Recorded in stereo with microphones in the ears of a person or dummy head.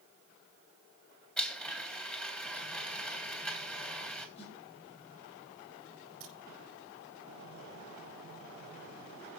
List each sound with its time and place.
1.4 s a blender: 5° left (ahead or behind), 3.5 m
4.4 s a snare drum: 30° left (ahead or behind), 6.5 m
6.2 s a crack: 35° right (ahead or behind), 5 m